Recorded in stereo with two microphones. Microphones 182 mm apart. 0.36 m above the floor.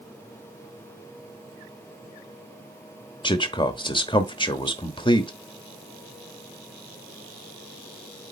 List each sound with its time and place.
3.2 s a man speaking: 25° left (ahead or behind), 0.9 m